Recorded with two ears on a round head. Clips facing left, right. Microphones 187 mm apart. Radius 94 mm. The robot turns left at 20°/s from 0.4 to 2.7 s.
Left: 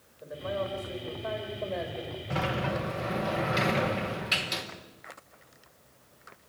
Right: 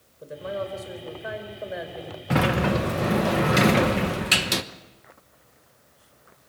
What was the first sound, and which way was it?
A man speaking, 145° right.